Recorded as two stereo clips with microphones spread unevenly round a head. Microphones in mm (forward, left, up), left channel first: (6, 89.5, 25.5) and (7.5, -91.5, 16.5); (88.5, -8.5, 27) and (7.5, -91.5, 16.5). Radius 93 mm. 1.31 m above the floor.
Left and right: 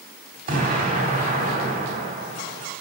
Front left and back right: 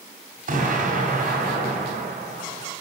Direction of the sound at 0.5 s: 140° right.